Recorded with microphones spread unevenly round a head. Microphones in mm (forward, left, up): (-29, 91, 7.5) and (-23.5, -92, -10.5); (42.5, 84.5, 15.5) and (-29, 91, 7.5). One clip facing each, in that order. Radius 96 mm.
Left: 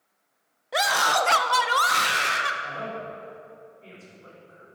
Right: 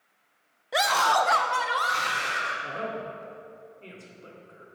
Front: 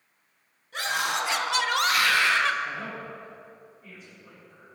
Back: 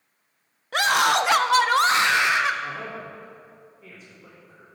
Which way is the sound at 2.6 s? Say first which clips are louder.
Right 1 dB, back 1 dB; 140° right.